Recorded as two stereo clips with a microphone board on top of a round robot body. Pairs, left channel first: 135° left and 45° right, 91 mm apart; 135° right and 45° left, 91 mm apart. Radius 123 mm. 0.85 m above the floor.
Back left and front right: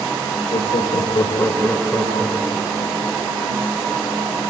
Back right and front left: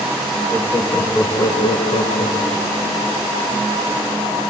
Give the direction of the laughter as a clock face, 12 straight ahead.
7 o'clock.